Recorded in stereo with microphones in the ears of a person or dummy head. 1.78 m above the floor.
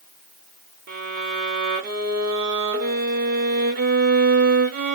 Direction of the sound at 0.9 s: 40° right (ahead or behind).